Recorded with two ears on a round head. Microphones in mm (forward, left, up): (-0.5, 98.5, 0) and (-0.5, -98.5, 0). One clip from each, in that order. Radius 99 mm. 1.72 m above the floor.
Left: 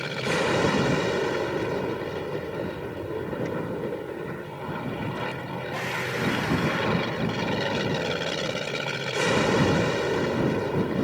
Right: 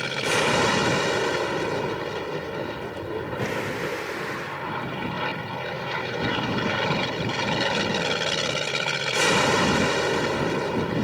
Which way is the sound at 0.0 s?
35° right (ahead or behind).